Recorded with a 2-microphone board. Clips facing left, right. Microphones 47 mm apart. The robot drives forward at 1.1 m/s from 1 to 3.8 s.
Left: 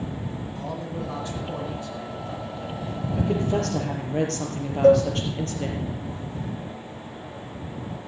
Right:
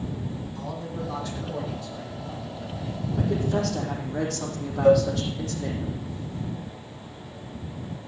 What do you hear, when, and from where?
0.6 s a man speaking: 25° left (ahead or behind), 9 m; by 3.0 s 30° left (ahead or behind), 7 m
3.2 s a woman speaking: 75° left (ahead or behind), 5.5 m
4.8 s a cowbell: 65° left (ahead or behind), 2.5 m